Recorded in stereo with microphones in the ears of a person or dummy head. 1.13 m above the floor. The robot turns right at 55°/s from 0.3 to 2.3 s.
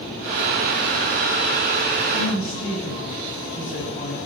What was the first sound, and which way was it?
A woman speaking, 60° left (ahead or behind).